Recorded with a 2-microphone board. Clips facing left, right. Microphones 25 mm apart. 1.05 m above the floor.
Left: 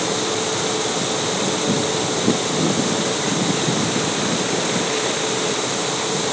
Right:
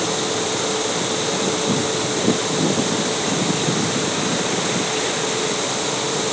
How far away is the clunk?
No clunk in this recording.